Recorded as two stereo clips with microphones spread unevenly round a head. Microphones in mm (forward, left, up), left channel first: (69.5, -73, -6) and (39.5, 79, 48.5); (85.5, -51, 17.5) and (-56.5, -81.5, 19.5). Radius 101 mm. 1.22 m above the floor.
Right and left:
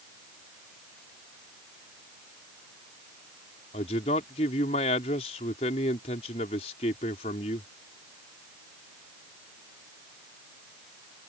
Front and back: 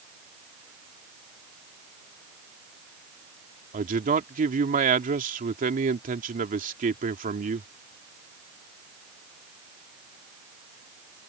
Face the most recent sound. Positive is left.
turn(degrees=-140)